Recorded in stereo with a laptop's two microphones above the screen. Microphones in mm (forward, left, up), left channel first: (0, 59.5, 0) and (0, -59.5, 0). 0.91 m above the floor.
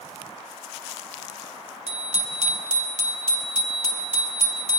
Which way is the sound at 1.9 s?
70° right (ahead or behind).